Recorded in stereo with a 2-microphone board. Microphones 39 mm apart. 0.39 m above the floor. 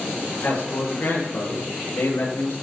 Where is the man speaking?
70° left (ahead or behind), 7.5 m; by 2.5 s 80° left, 9.5 m.